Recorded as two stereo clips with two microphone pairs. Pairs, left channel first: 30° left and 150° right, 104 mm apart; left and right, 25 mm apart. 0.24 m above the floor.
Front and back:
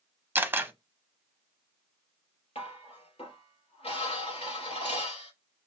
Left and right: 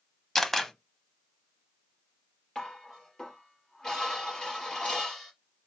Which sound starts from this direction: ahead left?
Dishes clattering, at 2.5 s.